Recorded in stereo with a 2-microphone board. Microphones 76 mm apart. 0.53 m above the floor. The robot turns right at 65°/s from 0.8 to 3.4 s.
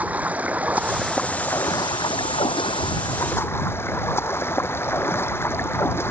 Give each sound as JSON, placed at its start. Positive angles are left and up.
{"t": 0.0, "sound": "running water", "azimuth_deg": -15}